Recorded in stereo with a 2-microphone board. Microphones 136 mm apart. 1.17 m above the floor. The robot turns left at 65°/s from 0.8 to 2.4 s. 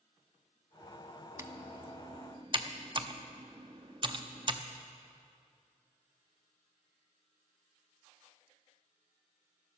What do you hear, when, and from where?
1.4 s typing on a keyboard: 25° right (ahead or behind), 0.7 m; by 4.6 s 35° right (ahead or behind), 0.7 m